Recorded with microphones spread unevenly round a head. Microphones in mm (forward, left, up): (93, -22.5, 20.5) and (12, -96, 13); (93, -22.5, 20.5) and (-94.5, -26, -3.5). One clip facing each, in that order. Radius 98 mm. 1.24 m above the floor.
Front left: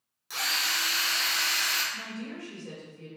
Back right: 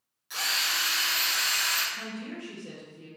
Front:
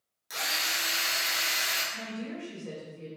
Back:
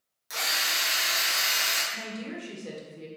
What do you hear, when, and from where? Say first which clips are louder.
0.3 s a drill: even, back 2 dB; 100° left, 1.0 m
1.9 s a woman speaking: back right 1 dB, even; 145° left, 1.1 m